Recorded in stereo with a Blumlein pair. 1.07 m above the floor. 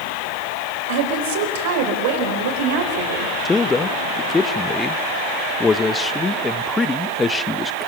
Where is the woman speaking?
50° right, 4.5 m.